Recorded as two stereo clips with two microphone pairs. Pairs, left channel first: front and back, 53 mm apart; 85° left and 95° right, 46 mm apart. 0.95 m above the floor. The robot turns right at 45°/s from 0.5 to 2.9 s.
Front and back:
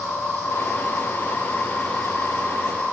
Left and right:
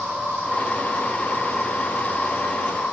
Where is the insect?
25° left, 3.5 m; by 2.9 s 130° left, 3.5 m.